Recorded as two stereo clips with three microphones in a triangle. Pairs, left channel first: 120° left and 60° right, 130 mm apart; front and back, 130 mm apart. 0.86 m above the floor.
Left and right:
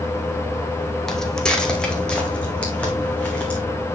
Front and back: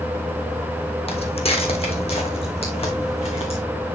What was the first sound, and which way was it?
Footsteps, 35° left.